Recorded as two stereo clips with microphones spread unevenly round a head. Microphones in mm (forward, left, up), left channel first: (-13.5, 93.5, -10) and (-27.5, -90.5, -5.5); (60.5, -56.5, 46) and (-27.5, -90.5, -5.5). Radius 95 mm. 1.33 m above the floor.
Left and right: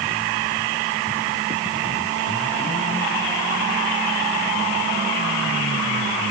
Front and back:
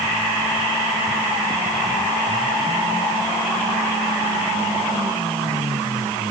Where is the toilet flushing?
I don't hear a toilet flushing.